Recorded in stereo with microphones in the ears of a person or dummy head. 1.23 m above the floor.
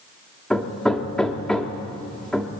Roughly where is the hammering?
Centre.